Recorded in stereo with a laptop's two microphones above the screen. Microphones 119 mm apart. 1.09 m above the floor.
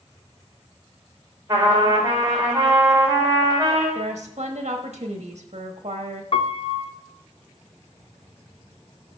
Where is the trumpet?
30° right (ahead or behind), 4.5 m.